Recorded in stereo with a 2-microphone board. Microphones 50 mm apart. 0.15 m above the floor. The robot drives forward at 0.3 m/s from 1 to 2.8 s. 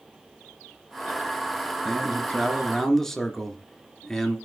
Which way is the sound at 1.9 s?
5° left (ahead or behind).